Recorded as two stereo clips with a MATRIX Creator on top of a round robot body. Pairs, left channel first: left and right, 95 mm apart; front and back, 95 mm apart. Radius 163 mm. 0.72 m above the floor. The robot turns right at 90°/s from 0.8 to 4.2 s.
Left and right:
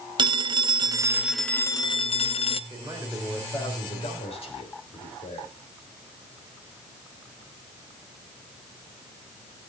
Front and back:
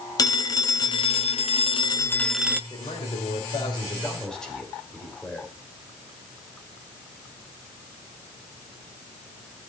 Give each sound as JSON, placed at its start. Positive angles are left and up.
{"t": 0.2, "sound": "a phone ringing", "azimuth_deg": -50, "distance_m": 0.8}
{"t": 2.7, "sound": "a man speaking", "azimuth_deg": -50, "distance_m": 3.5}